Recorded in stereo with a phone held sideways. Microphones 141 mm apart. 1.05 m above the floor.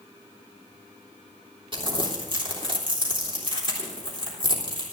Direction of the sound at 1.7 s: 40° right (ahead or behind).